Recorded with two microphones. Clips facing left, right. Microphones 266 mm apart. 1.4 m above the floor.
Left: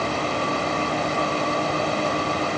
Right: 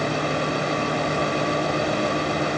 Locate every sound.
Only background noise.